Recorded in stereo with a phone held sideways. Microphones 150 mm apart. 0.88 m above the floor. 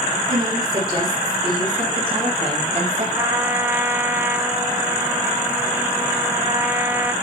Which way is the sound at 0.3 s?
30° right (ahead or behind).